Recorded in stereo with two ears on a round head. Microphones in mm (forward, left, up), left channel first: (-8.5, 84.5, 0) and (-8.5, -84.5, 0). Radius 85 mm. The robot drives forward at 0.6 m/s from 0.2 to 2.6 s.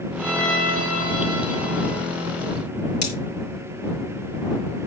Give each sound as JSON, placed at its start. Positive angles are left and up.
{"t": 0.2, "sound": "a violin", "side_deg": 5, "distance_m": 4.5}
{"t": 3.0, "sound": "cutlery clinking", "side_deg": 65, "distance_m": 5.0}